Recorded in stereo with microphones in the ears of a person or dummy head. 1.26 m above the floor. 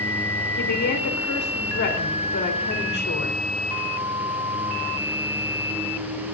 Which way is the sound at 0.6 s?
60° left (ahead or behind).